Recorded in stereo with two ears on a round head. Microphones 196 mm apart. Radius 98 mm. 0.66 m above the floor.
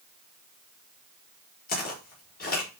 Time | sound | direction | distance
1.7 | footsteps | 45° left (ahead or behind) | 4.5 m